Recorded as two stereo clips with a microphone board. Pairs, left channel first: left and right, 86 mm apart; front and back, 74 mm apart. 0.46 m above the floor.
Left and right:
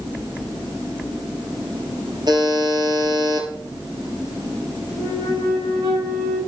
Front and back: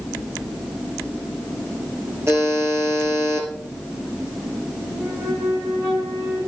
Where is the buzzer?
125° right, 2.5 m.